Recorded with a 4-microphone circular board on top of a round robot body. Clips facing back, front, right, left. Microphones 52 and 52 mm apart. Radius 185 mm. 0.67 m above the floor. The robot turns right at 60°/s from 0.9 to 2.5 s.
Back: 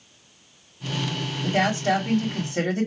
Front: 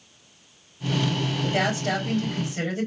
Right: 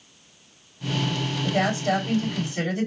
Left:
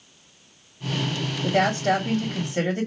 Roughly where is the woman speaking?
Left.